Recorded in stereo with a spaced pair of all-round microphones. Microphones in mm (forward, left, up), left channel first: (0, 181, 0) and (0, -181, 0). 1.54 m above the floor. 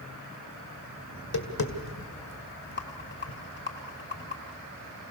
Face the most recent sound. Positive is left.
turn(degrees=30)  # may be behind; listen again after turning